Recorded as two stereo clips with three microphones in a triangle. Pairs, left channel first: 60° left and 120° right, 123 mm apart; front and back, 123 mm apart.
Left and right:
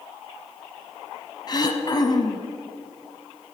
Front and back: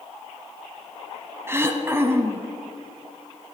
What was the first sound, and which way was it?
Throat clearing, 110° left.